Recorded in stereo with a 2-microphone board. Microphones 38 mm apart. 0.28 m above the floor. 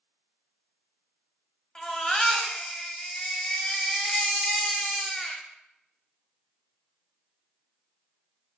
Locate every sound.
1.8 s a baby crying: 20° left (ahead or behind), 0.5 m